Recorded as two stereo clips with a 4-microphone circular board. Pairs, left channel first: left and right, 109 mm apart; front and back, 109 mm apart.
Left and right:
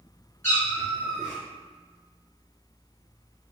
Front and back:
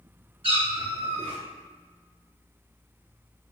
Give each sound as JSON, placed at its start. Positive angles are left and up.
{"t": 0.4, "sound": "a cat meowing", "azimuth_deg": 155, "distance_m": 1.6}